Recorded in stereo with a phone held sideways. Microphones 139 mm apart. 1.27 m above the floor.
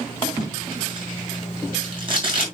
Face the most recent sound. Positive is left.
turn(degrees=-40)  # may be behind; listen again after turning